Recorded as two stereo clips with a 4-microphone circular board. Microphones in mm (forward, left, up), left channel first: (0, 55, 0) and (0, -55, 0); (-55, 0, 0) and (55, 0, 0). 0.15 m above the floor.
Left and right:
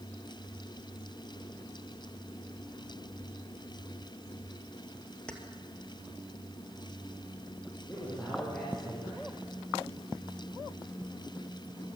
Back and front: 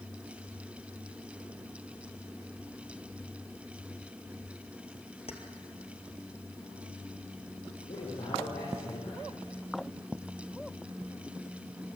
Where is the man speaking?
165° left, 7.5 m.